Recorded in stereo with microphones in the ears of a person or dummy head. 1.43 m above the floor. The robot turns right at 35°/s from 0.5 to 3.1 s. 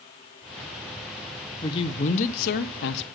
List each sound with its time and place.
1.6 s a man speaking: 20° left, 0.5 m; by 3.0 s 70° left, 0.5 m